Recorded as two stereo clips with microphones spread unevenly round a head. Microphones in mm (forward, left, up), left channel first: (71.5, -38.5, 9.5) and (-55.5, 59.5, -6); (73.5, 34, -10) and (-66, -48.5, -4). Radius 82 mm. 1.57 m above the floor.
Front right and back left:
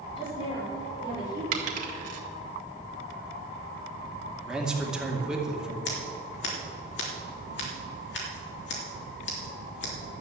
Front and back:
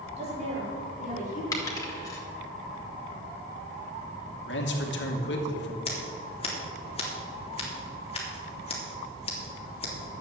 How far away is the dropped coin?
About 2.5 m.